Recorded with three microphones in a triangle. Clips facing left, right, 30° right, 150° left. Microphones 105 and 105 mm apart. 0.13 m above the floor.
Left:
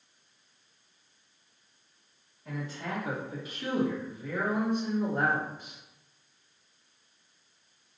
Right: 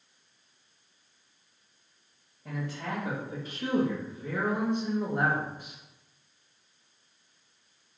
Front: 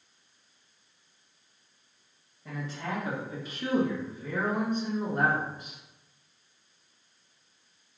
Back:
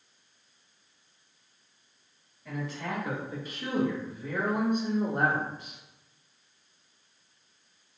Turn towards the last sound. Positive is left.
turn(degrees=170)